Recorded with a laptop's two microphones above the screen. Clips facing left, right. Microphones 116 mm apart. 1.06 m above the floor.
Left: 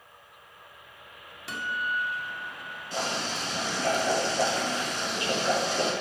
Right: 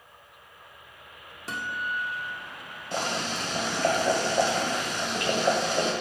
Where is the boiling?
60° right (ahead or behind), 2 m.